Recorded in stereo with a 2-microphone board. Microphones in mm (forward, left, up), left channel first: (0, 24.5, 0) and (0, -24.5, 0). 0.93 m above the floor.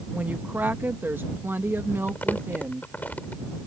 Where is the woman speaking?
35° right (ahead or behind); by 2.9 s 50° right (ahead or behind).